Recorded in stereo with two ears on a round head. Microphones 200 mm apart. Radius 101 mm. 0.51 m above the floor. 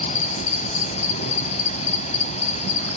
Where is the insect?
30° left (ahead or behind), 1.1 m.